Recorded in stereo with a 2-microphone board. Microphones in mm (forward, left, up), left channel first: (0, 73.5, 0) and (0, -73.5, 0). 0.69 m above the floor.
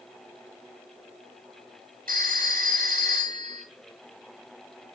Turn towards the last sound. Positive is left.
turn(degrees=-80)